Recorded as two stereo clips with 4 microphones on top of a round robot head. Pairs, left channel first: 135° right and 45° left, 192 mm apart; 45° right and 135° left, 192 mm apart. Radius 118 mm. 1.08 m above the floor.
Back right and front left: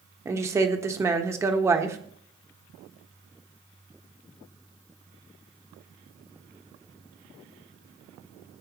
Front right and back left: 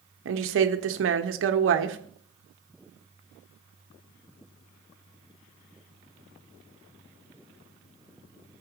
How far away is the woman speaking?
About 1.2 m.